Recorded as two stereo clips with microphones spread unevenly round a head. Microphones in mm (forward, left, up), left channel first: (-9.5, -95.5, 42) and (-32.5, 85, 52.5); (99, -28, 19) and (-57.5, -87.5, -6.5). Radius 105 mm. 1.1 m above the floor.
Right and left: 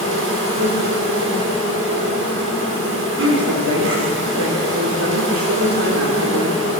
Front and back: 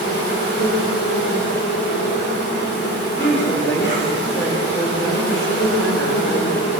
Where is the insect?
70° left, 5.5 m.